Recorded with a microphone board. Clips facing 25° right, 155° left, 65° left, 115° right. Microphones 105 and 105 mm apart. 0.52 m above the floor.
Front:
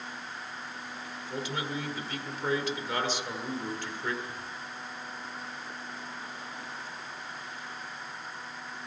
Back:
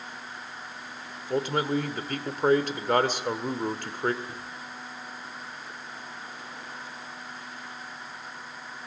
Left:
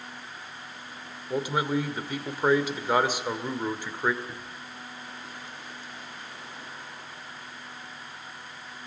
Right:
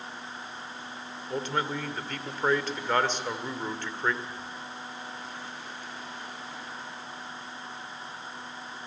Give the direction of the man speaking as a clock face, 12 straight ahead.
7 o'clock.